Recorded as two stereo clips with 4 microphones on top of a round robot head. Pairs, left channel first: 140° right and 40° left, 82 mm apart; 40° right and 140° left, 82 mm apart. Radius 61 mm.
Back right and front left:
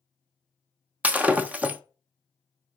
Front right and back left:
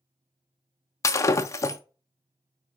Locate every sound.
1.0 s breaking glass: 20° right, 0.7 m